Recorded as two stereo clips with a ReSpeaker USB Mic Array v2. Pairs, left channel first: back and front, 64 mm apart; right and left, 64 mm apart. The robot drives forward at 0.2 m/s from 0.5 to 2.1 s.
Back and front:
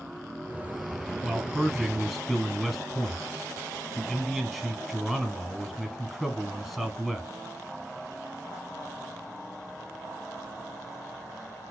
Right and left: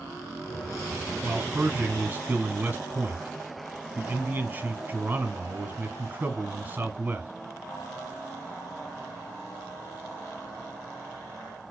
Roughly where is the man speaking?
Left.